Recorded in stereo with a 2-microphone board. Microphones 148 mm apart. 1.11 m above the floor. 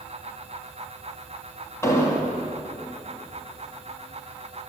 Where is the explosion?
20° left (ahead or behind), 1.6 m.